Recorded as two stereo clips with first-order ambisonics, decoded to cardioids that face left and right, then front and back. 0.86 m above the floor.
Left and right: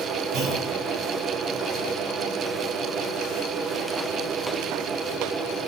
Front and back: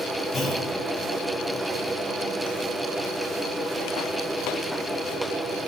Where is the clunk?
70° right, 3.5 m.